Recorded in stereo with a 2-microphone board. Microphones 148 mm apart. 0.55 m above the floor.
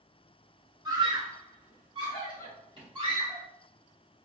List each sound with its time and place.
0.8 s a scream: 30° right (ahead or behind), 0.7 m; by 3.5 s 40° right (ahead or behind), 2 m